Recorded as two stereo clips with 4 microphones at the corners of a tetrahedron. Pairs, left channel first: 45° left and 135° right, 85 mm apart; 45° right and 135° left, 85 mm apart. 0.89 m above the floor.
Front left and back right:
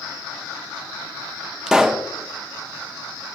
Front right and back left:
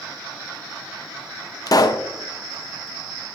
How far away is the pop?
About 0.6 m.